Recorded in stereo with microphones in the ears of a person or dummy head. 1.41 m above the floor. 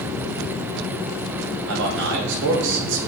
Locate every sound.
1.7 s a man speaking: 65° right (ahead or behind), 1.6 m